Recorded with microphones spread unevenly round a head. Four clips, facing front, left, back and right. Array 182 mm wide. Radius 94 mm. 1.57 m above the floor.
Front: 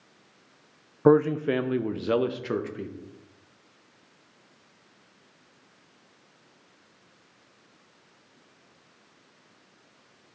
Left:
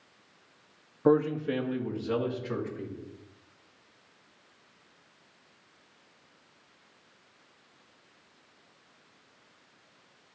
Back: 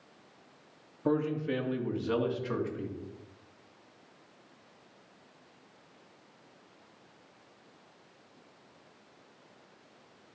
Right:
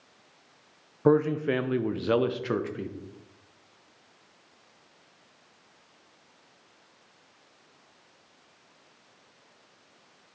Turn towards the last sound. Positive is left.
turn(degrees=-55)